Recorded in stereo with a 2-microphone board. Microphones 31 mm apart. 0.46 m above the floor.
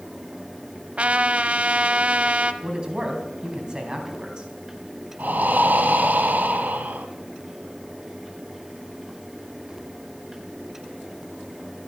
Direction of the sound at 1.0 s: 45° right (ahead or behind).